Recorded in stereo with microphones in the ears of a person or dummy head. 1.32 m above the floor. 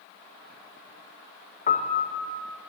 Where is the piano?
35° left (ahead or behind), 0.6 m.